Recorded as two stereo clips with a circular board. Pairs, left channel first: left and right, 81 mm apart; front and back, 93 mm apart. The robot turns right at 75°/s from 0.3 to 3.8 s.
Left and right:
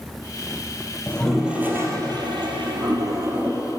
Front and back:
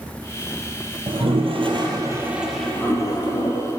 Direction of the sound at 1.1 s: 160° left.